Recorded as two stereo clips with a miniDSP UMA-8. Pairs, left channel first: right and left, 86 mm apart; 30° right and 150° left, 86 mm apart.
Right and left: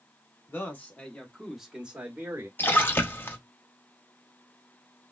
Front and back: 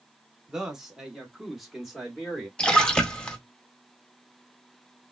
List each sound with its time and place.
0.5 s a man speaking: 130° right, 1.1 m; by 2.5 s 65° left, 1.0 m
2.6 s a splash: 95° right, 0.6 m